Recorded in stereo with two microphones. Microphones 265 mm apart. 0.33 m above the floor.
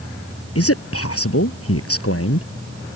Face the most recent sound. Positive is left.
turn(degrees=60)  # may be behind; listen again after turning